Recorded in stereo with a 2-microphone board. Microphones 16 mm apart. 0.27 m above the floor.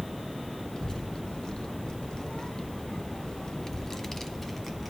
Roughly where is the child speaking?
Left.